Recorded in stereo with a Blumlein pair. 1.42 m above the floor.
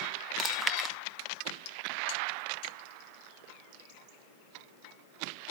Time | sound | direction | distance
0.4 | chewing | 10° right | 0.8 m